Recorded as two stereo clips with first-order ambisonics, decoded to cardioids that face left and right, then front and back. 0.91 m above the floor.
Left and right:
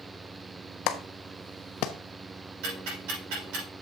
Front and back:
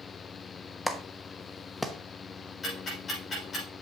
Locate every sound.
0.9 s a clap: 90° left, 1.0 m
2.6 s ticking: 75° right, 6.5 m